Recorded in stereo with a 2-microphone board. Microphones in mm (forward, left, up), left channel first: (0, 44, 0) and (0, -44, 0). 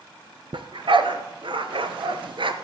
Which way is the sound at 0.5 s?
75° right (ahead or behind).